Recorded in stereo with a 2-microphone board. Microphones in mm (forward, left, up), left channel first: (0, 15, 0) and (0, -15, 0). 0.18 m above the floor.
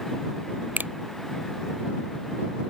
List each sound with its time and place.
0.8 s a finger snap: 75° right (ahead or behind)